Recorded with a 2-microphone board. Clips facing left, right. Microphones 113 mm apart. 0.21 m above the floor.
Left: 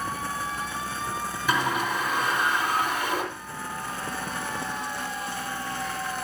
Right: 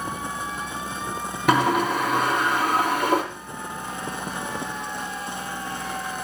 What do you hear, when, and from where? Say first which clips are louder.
1.5 s a sliding door: right 7 dB; 70° right (ahead or behind), 3 m